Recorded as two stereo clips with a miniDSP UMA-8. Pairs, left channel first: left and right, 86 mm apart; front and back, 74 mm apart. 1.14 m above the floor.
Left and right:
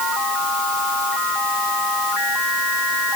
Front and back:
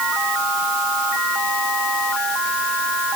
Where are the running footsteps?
No running footsteps in this recording.